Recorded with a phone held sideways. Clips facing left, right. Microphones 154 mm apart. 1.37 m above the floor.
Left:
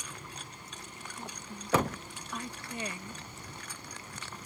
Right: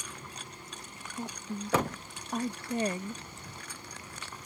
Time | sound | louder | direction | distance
1.2 | a woman speaking | right 8 dB | 40° right (ahead or behind) | ?